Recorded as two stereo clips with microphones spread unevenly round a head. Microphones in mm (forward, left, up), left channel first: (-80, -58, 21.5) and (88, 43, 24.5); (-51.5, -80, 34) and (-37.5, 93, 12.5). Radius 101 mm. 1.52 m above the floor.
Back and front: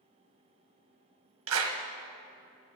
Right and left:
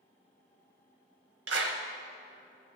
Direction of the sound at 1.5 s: 45° left.